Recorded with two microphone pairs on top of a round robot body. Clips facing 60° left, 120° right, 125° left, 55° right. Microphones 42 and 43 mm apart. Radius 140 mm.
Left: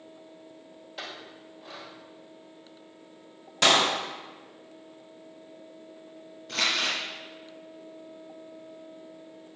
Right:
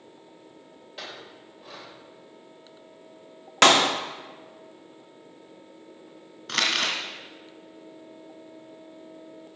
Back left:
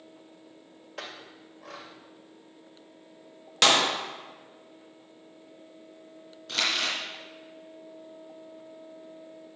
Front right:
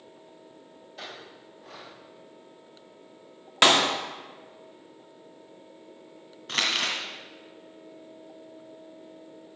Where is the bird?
No bird in this recording.